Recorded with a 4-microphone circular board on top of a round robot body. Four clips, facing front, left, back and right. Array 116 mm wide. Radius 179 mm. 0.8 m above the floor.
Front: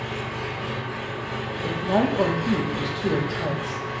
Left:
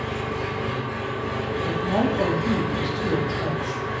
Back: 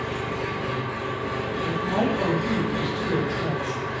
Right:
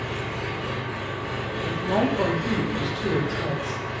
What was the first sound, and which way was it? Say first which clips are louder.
An engine running: left 3 dB, back 2 dB; 120° left.